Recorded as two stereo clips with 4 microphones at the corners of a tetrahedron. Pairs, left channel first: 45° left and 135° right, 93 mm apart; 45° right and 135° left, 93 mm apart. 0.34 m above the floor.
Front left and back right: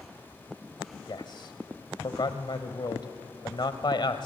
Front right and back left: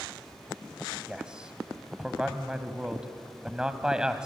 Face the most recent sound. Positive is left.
turn(degrees=55)